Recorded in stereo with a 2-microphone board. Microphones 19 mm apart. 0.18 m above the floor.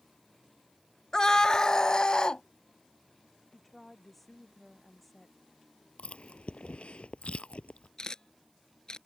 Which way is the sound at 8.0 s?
40° left (ahead or behind).